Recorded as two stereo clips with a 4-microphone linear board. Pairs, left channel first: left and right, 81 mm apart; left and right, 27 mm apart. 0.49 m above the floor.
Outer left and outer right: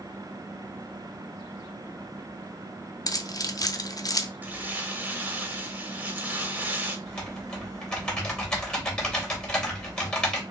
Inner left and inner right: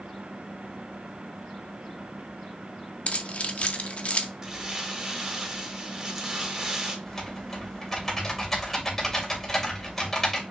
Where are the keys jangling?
45° left (ahead or behind), 0.6 m.